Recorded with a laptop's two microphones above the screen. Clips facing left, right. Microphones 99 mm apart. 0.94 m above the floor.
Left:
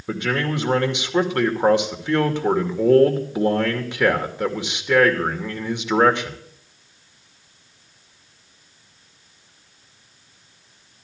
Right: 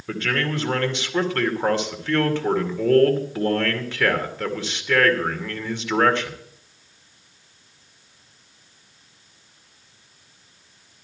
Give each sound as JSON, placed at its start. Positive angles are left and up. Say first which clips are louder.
{"t": 0.1, "sound": "a man speaking", "louder": "left 2 dB", "side_deg": 20, "distance_m": 2.5}